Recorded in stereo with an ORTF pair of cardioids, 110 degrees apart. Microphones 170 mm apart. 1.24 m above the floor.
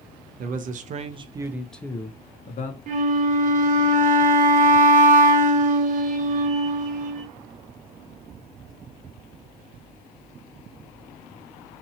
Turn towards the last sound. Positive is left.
turn(degrees=-50)